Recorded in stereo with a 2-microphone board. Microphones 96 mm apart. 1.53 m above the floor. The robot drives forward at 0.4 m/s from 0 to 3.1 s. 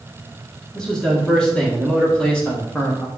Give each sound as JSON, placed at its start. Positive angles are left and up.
{"t": 0.8, "sound": "a man speaking", "side_deg": 5, "distance_m": 2.0}